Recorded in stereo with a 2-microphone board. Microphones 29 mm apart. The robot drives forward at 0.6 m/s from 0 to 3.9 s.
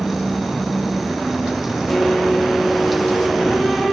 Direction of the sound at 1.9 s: 10° left (ahead or behind).